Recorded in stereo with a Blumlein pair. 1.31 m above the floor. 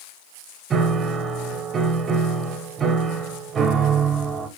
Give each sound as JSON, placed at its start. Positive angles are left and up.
{"t": 0.7, "sound": "a piano", "azimuth_deg": -20, "distance_m": 0.7}